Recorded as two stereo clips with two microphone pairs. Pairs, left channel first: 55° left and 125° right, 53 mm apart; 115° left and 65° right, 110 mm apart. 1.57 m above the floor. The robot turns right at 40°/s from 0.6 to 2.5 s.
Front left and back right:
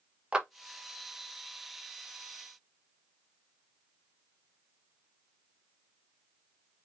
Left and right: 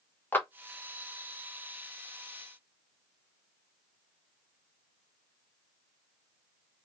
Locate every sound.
0.3 s a clap: straight behind, 0.8 m